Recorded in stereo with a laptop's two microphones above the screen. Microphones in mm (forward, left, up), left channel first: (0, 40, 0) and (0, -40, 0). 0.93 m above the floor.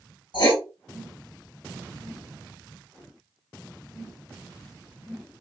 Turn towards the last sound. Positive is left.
turn(degrees=65)  # may be behind; listen again after turning